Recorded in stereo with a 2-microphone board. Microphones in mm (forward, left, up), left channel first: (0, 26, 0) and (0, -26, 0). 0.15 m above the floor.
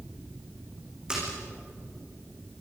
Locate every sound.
1.1 s a splash: 20° right (ahead or behind), 8 m